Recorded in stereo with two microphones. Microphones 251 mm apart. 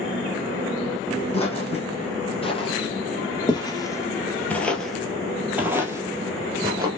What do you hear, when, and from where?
1.3 s footsteps: 25° left (ahead or behind), 2 m; by 6.9 s 15° right (ahead or behind), 1.7 m